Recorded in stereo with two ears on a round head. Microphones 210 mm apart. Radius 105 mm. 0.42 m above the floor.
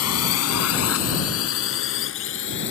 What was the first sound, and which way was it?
A drone, 70° left (ahead or behind).